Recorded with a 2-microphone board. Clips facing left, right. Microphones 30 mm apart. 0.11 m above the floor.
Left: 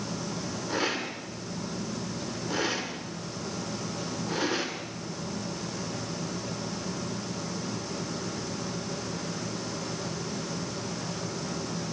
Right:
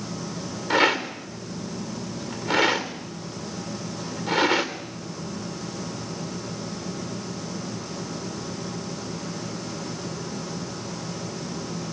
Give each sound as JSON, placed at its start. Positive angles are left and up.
{"t": 0.7, "sound": "a rattle", "side_deg": -65, "distance_m": 3.0}